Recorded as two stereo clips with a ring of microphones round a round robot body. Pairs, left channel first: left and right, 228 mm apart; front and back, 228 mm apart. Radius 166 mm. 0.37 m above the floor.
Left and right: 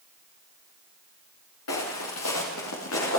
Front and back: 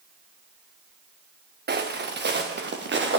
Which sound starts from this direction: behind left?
Footsteps, at 1.7 s.